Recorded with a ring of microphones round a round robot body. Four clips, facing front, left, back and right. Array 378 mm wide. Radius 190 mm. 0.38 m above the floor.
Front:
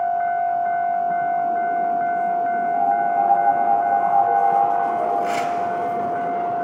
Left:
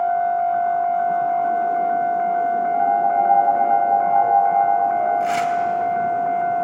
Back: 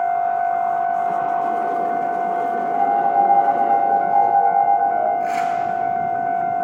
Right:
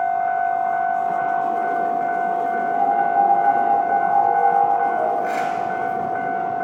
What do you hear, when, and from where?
2.7 s a piano: 175° right, 9 m
5.2 s tearing paper: 60° left, 2.5 m